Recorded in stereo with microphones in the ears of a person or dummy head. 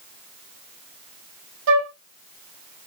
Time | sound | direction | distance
1.7 | a flute | 65° right (ahead or behind) | 0.7 m